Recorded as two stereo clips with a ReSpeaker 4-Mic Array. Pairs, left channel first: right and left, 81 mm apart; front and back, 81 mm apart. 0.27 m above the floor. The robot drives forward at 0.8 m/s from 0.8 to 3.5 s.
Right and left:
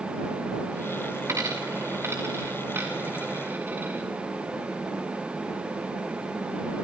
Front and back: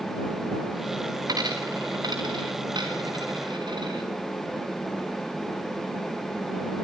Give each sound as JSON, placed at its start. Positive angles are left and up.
{"t": 1.3, "sound": "a dropped coin", "azimuth_deg": 145, "distance_m": 3.5}